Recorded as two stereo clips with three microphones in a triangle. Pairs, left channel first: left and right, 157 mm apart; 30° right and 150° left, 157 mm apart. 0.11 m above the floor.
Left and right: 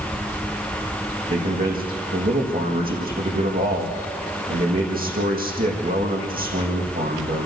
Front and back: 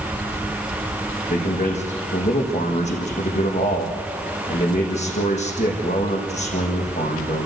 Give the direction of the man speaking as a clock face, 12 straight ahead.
2 o'clock.